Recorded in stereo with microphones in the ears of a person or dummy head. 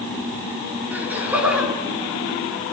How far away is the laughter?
About 4 m.